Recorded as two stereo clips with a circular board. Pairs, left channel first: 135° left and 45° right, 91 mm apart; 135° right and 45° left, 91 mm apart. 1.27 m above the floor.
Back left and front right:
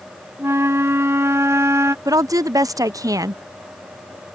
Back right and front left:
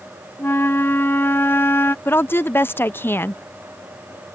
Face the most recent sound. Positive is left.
turn(degrees=-80)